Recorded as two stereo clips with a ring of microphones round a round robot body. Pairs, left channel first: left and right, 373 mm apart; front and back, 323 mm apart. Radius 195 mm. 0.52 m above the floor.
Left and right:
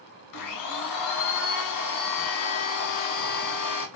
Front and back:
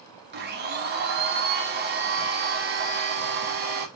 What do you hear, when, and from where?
0.3 s a blender: 125° left, 0.6 m